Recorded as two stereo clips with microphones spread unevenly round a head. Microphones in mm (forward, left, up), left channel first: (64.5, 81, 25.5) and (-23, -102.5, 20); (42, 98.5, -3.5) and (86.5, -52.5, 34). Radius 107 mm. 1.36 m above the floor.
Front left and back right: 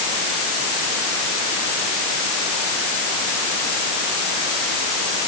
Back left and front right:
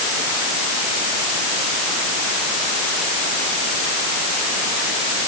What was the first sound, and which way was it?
Only background noise.